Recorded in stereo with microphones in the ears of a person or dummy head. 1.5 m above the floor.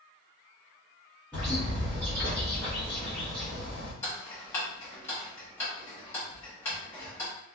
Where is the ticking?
15° left (ahead or behind), 0.7 m.